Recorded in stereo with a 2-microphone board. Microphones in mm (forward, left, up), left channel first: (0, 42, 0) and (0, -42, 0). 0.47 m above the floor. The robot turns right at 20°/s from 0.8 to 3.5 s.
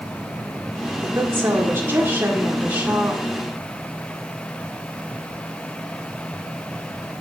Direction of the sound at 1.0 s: 70° right.